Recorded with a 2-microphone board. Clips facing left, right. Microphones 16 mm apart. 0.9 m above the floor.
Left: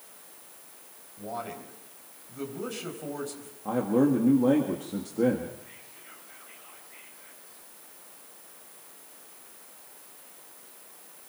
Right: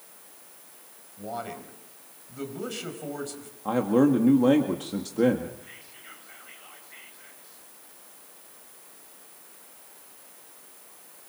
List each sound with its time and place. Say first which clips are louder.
1.2 s a man speaking: right 1 dB; 15° right (ahead or behind), 4.5 m
3.6 s a man speaking: right 3 dB; 50° right (ahead or behind), 1.8 m
5.6 s whispering: right 3 dB; 35° right (ahead or behind), 5.5 m